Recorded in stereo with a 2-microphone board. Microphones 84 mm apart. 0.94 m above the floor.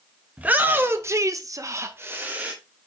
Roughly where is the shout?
Centre.